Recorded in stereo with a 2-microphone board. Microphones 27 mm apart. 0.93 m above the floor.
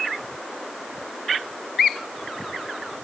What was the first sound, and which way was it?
Only background noise.